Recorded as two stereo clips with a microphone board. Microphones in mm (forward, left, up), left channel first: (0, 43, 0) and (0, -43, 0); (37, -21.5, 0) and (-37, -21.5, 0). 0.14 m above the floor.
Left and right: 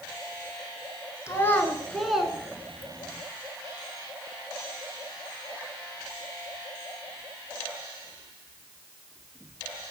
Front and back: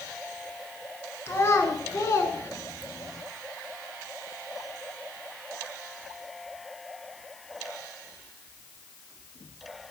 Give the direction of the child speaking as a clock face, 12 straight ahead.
11 o'clock.